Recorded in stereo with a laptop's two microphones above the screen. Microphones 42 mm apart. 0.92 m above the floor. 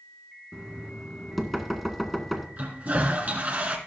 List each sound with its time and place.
0.5 s knocking: 5° left (ahead or behind), 2 m
2.6 s a toilet flushing: 30° right (ahead or behind), 2 m